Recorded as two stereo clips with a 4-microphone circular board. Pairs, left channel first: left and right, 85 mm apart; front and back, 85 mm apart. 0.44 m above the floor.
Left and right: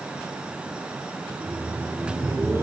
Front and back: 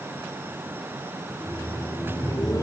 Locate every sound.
1.3 s laughter: 40° right, 1.8 m; by 2.6 s 35° right, 2.5 m